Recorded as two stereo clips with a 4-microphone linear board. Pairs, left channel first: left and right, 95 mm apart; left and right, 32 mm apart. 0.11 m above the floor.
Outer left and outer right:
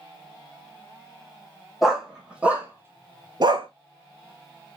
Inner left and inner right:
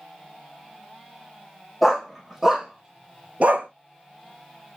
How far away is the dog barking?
About 1.5 m.